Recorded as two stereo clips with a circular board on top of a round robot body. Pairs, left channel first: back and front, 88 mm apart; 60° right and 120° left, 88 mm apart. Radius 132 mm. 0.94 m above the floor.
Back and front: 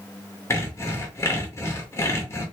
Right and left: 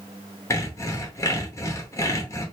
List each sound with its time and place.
0.5 s sawing: 120° right, 0.9 m